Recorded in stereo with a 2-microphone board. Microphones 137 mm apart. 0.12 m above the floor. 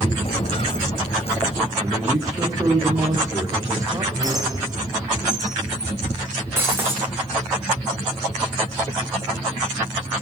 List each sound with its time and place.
0.2 s footsteps: 45° left (ahead or behind), 0.7 m
1.8 s a man speaking: 25° right (ahead or behind), 6 m
4.2 s a squeak: 25° right (ahead or behind), 4.5 m
6.6 s breaking glass: 15° right (ahead or behind), 4 m